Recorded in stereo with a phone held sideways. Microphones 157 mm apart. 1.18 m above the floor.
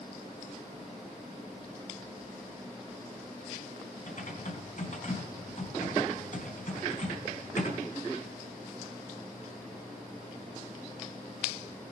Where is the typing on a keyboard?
60° left (ahead or behind), 4 m.